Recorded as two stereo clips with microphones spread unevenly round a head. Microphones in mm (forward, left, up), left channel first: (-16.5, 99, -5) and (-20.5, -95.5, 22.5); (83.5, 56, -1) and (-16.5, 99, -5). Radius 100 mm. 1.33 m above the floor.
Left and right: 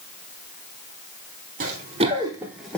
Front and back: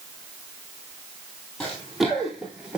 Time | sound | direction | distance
1.6 | running footsteps | 110° right | 1.9 m